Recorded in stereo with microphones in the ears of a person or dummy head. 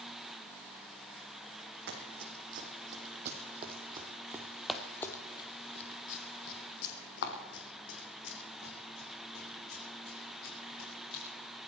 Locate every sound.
1.9 s running footsteps: 60° right (ahead or behind), 3.5 m; by 11.2 s 80° left, 6.5 m